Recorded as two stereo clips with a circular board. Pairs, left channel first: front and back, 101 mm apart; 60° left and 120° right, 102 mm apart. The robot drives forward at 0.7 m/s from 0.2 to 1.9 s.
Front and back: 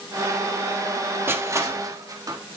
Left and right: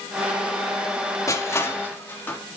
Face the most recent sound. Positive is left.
turn(degrees=130)